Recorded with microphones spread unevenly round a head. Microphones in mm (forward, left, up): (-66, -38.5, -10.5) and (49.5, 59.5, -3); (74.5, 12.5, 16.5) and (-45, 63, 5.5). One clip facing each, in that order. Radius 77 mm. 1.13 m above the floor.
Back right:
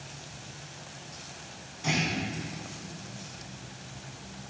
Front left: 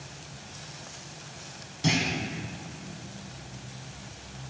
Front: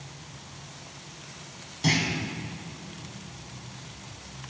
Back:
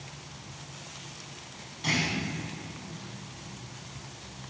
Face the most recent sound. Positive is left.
turn(degrees=10)